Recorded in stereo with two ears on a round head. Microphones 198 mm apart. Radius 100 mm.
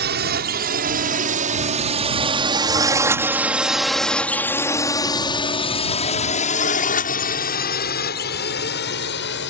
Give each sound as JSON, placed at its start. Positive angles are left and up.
{"t": 0.0, "sound": "a drone", "side_deg": -50}